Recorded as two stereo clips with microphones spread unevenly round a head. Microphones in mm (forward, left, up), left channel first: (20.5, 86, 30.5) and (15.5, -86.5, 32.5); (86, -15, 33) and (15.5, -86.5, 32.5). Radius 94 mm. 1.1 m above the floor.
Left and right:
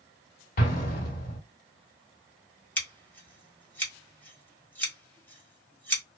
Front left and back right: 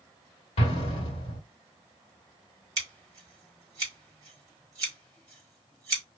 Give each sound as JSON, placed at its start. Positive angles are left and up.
{"t": 0.6, "sound": "an explosion", "azimuth_deg": 60, "distance_m": 1.1}
{"t": 2.8, "sound": "scissors", "azimuth_deg": 165, "distance_m": 1.3}